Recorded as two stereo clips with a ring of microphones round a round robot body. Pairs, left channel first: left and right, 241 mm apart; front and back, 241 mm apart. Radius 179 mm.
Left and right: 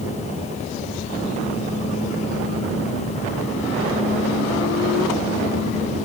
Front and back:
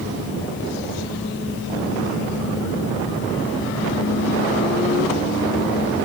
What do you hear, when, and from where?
Only background noise.